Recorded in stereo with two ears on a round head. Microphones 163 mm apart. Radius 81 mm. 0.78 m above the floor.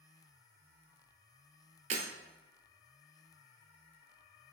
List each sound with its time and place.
1.9 s breaking glass: 40° right (ahead or behind), 0.9 m